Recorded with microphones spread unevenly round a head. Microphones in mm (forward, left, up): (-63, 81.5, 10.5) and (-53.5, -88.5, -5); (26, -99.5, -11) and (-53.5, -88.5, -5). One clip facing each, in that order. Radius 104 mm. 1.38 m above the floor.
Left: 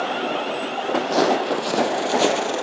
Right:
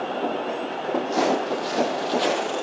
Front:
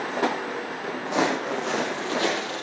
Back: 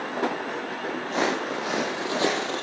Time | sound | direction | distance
1.1 | footsteps | 75° left | 3 m